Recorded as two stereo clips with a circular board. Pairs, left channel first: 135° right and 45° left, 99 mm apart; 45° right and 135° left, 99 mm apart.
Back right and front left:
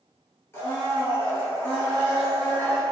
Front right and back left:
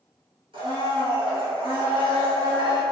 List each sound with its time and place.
0.5 s a blender: 160° left, 1.0 m